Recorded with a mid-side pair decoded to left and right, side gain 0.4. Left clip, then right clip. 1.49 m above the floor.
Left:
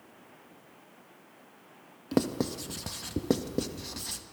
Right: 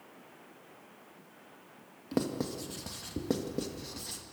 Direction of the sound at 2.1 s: 40° left.